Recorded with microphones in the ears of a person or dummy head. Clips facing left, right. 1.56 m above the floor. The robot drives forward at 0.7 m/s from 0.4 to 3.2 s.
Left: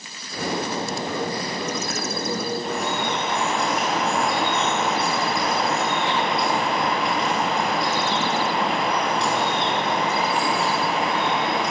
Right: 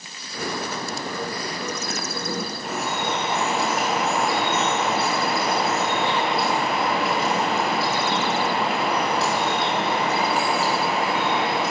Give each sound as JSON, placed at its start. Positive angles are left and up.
{"t": 2.6, "sound": "dripping", "side_deg": 0, "distance_m": 5.5}